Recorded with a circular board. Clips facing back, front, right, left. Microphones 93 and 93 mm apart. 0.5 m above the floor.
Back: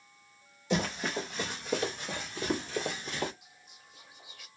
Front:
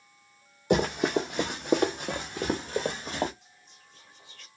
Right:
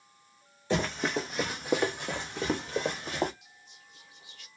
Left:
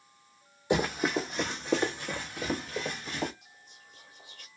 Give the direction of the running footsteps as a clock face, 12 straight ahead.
11 o'clock.